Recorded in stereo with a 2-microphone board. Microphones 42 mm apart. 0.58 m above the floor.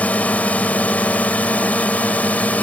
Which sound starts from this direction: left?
A drone, at 0.0 s.